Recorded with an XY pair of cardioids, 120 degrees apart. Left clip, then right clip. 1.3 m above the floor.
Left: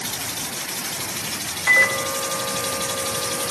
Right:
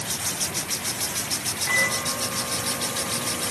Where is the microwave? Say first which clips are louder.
Left 7 dB; 70° left, 4.5 m.